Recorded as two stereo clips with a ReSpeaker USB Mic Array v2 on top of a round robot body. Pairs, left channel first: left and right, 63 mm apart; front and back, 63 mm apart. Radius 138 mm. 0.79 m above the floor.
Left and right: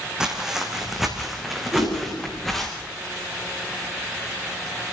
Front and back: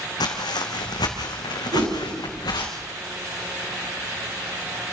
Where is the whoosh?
160° right, 8.5 m.